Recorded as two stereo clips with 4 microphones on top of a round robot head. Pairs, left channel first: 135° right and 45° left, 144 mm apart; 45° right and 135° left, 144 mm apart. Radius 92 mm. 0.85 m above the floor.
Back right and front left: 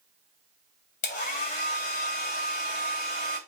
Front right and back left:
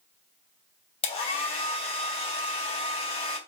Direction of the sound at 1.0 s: 95° right.